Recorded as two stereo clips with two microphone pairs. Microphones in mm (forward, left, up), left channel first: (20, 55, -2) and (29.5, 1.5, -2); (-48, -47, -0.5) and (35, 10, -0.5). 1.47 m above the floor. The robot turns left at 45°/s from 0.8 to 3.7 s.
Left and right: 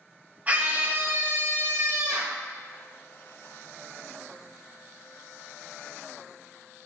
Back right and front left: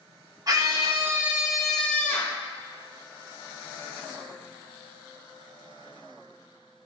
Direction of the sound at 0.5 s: 20° right.